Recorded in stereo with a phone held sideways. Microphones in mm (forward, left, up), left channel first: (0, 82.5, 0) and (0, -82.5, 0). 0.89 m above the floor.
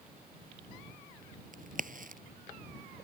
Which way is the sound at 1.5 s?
55° right (ahead or behind).